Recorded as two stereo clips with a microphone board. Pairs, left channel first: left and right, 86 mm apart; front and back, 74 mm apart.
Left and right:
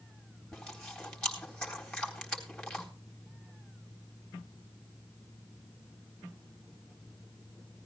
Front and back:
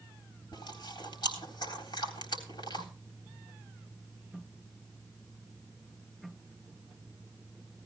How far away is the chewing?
About 4 m.